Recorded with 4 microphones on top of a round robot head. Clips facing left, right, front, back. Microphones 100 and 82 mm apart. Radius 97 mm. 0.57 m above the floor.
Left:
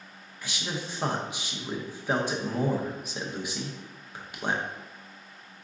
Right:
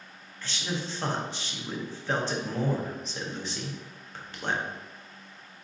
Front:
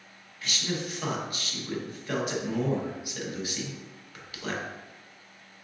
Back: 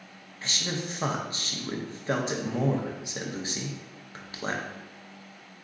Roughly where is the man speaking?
Behind.